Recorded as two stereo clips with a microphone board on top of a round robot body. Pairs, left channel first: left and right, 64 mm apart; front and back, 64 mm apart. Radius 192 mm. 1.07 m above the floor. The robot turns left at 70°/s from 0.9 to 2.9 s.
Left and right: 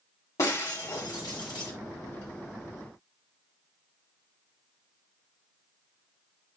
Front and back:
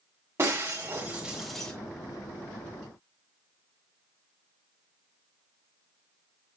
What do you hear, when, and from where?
0.4 s breaking glass: 130° left, 1.8 m; by 1.7 s 70° left, 1.8 m